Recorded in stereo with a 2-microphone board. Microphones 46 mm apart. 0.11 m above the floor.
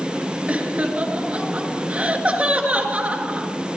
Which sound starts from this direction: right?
Laughter, at 0.5 s.